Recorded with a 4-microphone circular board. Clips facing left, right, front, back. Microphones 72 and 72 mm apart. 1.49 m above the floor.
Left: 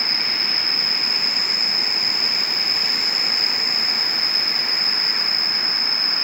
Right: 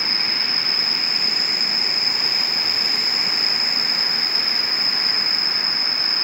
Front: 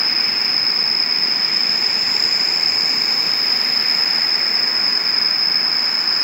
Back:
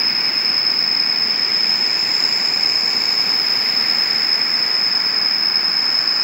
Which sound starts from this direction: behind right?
An insect, at 0.0 s.